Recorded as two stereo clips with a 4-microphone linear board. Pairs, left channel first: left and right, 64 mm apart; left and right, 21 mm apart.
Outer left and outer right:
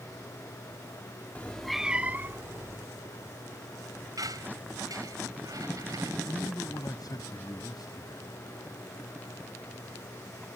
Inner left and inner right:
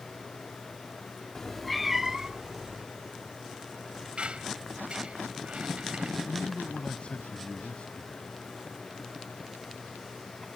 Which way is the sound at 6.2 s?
75° left (ahead or behind).